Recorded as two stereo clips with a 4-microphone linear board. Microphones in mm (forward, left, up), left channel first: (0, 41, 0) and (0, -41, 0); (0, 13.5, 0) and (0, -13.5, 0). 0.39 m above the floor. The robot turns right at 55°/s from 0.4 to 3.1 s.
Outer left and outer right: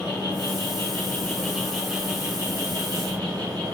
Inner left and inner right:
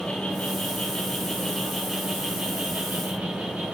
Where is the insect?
100° left, 2 m; by 3.7 s 110° right, 2 m.